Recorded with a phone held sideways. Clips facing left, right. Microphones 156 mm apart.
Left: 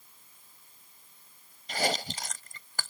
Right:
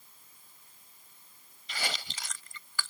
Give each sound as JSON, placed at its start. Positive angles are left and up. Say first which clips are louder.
{"t": 1.7, "sound": "chewing", "louder": "left 9 dB", "side_deg": 45}